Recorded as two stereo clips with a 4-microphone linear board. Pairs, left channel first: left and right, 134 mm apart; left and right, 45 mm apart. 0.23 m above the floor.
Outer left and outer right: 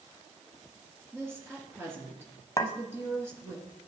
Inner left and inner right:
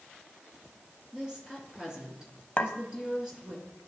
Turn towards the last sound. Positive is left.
turn(degrees=30)  # may be behind; listen again after turning